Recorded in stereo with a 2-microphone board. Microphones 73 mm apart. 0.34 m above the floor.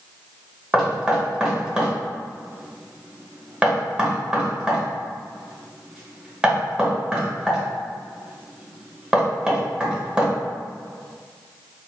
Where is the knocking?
10° right (ahead or behind), 0.8 m.